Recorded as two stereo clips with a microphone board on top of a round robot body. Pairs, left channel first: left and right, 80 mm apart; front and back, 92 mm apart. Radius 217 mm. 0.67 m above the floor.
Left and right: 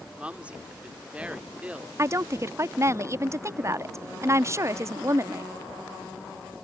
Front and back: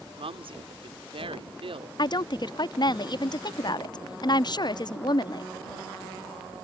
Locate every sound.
0.2 s a woman speaking: 165° right
2.0 s a woman speaking: 35° right